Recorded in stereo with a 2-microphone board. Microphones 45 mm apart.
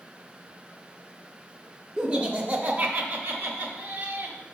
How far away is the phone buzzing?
I don't hear a phone buzzing.